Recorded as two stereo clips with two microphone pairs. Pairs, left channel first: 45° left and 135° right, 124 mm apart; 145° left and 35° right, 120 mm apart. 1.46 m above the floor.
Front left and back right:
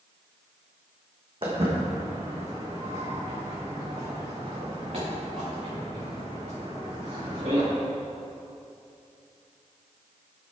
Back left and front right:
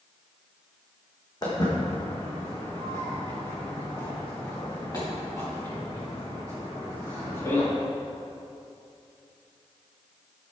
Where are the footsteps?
165° right, 3.5 m; by 7.7 s 155° right, 7.5 m.